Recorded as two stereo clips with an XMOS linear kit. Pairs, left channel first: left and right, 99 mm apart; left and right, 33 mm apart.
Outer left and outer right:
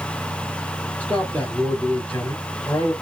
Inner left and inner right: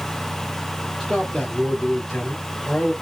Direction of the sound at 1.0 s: 15° left (ahead or behind).